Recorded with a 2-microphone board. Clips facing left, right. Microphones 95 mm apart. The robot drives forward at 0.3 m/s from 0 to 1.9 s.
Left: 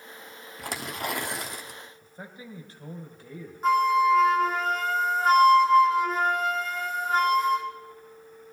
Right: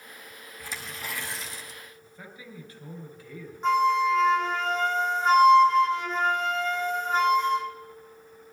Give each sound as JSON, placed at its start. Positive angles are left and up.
{"t": 0.6, "sound": "tearing paper", "side_deg": 75, "distance_m": 1.1}
{"t": 2.0, "sound": "a man speaking", "side_deg": 30, "distance_m": 2.5}
{"t": 3.6, "sound": "a flute", "side_deg": 5, "distance_m": 1.9}